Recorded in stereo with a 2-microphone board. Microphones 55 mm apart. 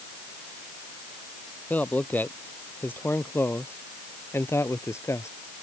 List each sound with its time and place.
1.7 s a man speaking: 30° left (ahead or behind); by 5.3 s 60° left (ahead or behind)